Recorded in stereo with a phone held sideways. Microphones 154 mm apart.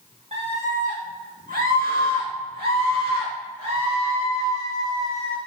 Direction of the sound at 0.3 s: 45° right (ahead or behind).